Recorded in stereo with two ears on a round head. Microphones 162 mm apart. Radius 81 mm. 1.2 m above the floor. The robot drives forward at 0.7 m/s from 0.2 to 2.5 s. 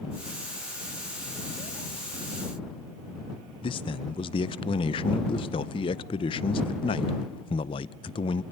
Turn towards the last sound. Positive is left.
turn(degrees=30)  # may be behind; listen again after turning